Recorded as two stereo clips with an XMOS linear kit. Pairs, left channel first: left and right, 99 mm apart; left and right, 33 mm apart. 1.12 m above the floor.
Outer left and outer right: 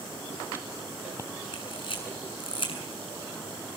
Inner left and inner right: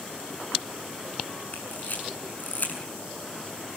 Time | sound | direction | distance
1.5 | a camera shutter | 60° left (ahead or behind) | 6.5 m